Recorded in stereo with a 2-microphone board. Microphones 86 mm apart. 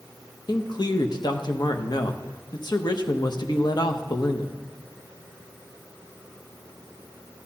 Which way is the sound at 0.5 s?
60° left (ahead or behind).